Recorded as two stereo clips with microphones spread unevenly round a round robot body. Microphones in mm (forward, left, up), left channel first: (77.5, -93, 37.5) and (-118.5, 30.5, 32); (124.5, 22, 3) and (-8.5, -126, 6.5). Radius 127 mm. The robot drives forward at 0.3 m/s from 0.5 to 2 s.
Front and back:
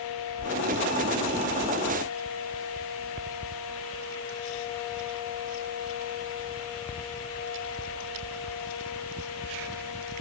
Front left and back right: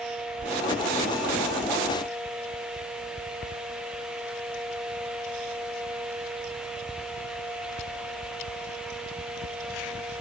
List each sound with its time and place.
Only background noise.